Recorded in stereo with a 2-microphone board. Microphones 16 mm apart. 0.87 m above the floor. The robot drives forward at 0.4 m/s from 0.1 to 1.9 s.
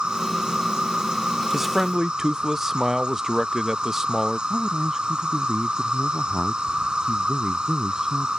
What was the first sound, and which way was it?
An insect, 85° right.